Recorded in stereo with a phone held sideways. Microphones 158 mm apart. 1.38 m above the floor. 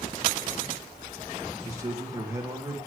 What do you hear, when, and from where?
1.6 s a man speaking: 20° right (ahead or behind), 1.9 m